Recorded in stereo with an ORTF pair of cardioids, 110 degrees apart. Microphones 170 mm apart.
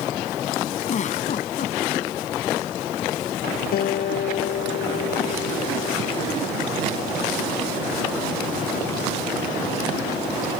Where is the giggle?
45° left.